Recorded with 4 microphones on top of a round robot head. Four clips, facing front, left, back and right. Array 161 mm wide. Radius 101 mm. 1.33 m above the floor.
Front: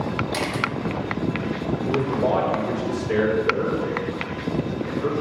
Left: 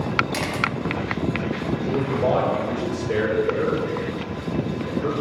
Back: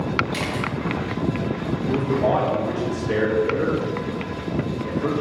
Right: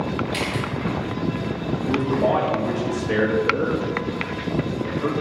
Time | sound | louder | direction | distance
0.3 | a camera shutter | left 1 dB, front 1 dB | 35° left | 0.6 m
1.9 | a man speaking | right 2 dB, back 2 dB | 120° right | 2.5 m